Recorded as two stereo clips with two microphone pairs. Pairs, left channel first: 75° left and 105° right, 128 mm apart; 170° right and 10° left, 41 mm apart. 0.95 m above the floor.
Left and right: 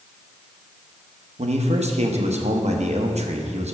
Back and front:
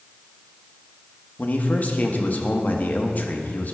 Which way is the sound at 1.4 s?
130° right.